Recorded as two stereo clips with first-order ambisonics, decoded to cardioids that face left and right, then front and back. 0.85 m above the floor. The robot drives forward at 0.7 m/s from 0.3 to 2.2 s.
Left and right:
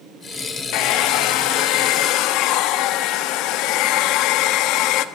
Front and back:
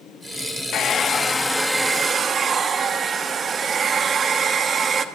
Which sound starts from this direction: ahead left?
A hair dryer, at 0.7 s.